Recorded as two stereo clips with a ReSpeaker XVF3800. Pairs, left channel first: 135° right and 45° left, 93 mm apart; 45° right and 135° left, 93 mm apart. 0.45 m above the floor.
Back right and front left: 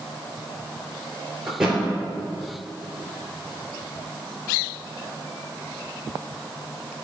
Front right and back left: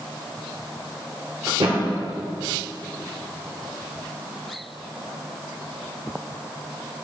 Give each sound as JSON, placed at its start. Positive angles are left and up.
{"t": 1.5, "sound": "a thud", "azimuth_deg": 130, "distance_m": 2.5}